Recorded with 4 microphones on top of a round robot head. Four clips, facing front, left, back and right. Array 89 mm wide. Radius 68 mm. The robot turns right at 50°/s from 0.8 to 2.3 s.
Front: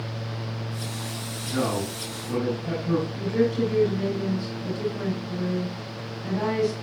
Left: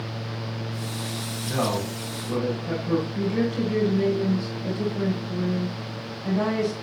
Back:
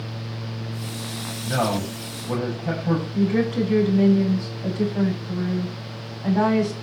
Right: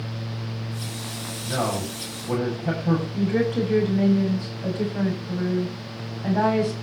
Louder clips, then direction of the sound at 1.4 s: Even, back 3 dB; 170° right.